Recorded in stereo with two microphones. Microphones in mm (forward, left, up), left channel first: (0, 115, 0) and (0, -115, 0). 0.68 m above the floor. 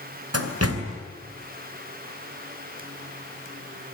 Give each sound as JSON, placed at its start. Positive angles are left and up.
{"t": 0.3, "sound": "a door slam", "side_deg": -80, "distance_m": 2.5}